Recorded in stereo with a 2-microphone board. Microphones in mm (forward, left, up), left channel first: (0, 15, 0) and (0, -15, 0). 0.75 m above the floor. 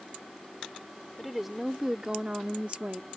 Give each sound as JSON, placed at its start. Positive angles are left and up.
{"t": 1.2, "sound": "a woman speaking", "side_deg": -5}